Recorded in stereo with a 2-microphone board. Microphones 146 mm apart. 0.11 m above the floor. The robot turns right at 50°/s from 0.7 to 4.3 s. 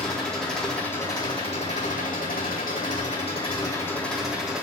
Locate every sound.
0.0 s an engine running: 5° left, 4 m; by 4.6 s 175° right, 4 m